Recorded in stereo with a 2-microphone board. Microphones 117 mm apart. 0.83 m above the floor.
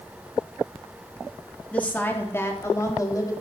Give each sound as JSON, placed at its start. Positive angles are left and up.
{"t": 1.7, "sound": "a woman speaking", "side_deg": 10, "distance_m": 1.9}